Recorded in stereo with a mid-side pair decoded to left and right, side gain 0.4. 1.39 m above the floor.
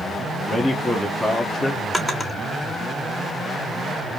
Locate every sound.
0.5 s a man speaking: 20° left, 0.9 m
1.9 s a drawer: 15° left, 1.9 m